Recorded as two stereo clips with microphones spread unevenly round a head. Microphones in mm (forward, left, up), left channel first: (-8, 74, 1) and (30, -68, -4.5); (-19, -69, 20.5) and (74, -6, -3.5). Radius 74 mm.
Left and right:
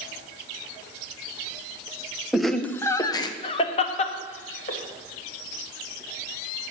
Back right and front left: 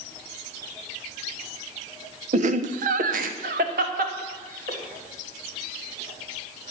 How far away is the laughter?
About 0.8 m.